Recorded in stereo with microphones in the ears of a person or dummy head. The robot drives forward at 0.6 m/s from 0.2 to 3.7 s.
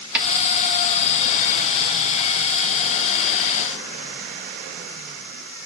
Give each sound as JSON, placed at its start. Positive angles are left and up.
{"t": 0.1, "sound": "a snare drum", "side_deg": -10, "distance_m": 3.0}